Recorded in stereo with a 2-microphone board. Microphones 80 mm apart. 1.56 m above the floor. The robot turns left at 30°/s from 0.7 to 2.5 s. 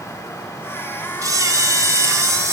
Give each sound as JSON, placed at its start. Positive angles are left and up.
{"t": 1.2, "sound": "a camera shutter", "azimuth_deg": -80, "distance_m": 1.4}